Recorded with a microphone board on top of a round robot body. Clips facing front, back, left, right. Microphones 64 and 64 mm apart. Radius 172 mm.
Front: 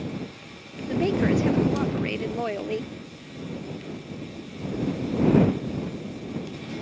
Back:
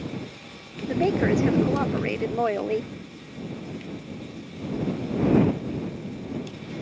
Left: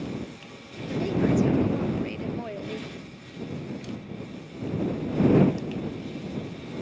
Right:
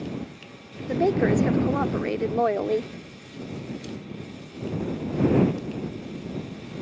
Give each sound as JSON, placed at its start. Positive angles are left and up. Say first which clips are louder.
{"t": 0.9, "sound": "a woman speaking", "louder": "back 1 dB, right 3 dB", "azimuth_deg": -115}